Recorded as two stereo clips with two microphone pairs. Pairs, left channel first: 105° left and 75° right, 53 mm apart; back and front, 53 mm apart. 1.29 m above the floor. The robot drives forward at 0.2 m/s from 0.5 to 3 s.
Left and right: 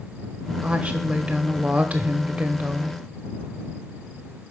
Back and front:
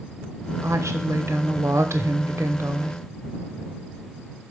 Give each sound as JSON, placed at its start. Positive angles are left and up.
{"t": 0.6, "sound": "a woman speaking", "azimuth_deg": -15, "distance_m": 1.1}